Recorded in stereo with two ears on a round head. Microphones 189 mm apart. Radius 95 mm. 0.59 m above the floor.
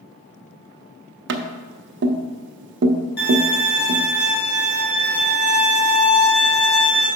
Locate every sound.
1.3 s tapping: 55° right (ahead or behind), 0.7 m
3.2 s a violin: 50° left (ahead or behind), 2.5 m